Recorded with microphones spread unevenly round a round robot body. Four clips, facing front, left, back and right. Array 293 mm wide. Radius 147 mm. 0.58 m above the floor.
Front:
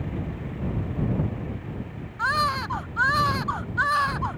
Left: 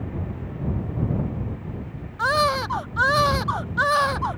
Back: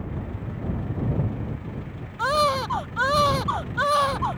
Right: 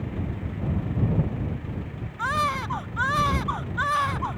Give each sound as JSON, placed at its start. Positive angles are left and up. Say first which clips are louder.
{"t": 2.2, "sound": "a baby crying", "louder": "left 5 dB, back 3 dB", "azimuth_deg": 135}